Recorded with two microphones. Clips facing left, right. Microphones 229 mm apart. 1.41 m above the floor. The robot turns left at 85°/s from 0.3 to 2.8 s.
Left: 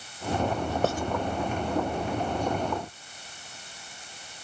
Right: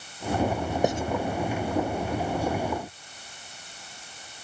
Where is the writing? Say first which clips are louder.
Right 3 dB; 15° right (ahead or behind); by 1.0 s 30° right (ahead or behind).